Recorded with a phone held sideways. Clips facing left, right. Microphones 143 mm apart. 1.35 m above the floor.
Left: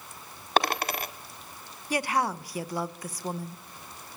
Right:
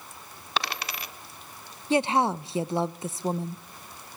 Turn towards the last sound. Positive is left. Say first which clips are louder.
# right 5 dB
turn(degrees=-25)  # may be behind; listen again after turning